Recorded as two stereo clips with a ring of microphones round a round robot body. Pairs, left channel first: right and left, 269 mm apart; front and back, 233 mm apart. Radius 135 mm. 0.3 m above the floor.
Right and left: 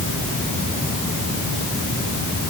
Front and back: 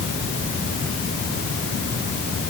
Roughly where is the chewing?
I don't hear chewing.